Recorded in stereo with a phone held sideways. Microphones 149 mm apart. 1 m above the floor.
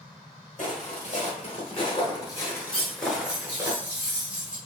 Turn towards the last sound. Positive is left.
turn(degrees=-5)  # may be behind; listen again after turning